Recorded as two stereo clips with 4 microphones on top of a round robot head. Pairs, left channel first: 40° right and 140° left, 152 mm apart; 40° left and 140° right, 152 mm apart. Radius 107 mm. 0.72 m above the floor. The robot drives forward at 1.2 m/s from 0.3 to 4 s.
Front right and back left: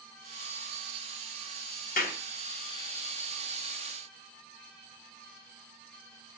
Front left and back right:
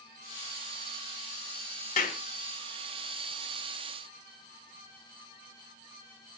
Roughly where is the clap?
Ahead.